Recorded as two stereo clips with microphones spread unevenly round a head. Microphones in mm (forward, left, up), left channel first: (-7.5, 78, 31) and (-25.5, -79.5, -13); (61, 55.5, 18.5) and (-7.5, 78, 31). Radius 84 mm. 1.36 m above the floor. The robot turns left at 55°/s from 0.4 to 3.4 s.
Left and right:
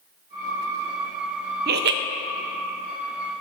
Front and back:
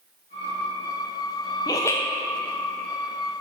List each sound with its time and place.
1.7 s laughter: 70° right, 0.7 m; by 2.0 s 90° right, 0.7 m